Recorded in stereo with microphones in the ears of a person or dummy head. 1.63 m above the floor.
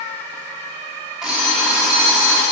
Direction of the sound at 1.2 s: Centre (ahead or behind).